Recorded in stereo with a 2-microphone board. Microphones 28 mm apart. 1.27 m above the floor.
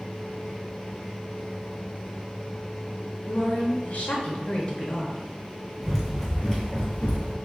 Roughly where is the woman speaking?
Left.